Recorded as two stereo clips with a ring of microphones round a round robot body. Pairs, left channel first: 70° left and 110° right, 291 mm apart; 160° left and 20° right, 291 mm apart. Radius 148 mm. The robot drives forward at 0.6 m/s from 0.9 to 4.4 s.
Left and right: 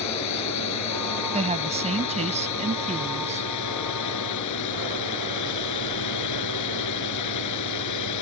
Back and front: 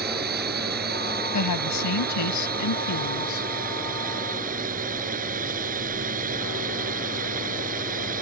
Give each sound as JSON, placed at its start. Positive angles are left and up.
{"t": 0.0, "sound": "a drone", "azimuth_deg": 35}
{"t": 1.3, "sound": "a woman speaking", "azimuth_deg": 180}